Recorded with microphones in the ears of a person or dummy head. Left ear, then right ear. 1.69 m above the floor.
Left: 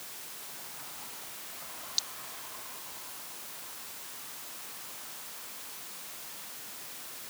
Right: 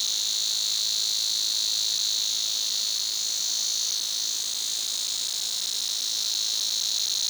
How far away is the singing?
I don't hear singing.